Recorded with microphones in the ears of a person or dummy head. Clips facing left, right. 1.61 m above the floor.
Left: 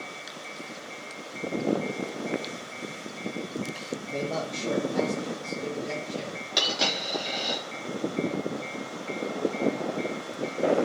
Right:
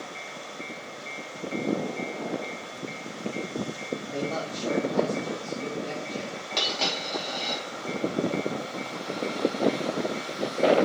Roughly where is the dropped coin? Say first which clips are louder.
Left 1 dB; centre.